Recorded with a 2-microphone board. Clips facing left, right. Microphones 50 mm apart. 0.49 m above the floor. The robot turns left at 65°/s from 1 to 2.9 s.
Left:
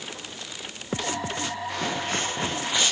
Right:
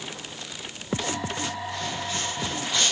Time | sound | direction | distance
1.7 | footsteps | 85° left | 3.5 m